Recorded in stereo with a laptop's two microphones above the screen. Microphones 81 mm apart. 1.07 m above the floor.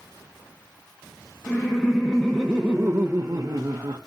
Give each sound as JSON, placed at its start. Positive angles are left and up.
{"t": 1.5, "sound": "laughter", "side_deg": 15, "distance_m": 1.3}